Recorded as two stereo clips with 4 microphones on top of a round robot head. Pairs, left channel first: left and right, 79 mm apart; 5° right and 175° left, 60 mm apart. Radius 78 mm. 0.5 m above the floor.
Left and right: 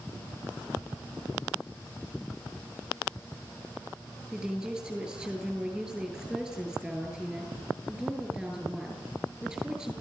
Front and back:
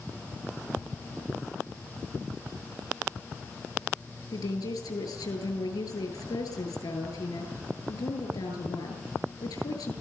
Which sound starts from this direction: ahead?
A woman speaking, at 4.3 s.